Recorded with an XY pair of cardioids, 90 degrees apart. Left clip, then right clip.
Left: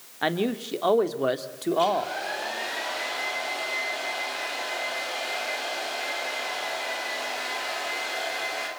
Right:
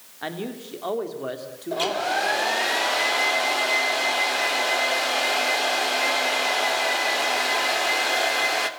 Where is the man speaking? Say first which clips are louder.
Left 6 dB; 50° left, 3 m.